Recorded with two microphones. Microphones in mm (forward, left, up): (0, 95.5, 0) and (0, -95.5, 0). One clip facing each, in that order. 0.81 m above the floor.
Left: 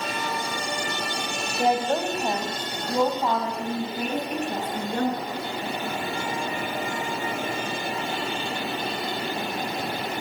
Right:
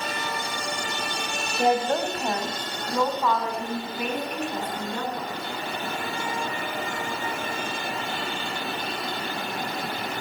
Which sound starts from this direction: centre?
A woman speaking, at 1.6 s.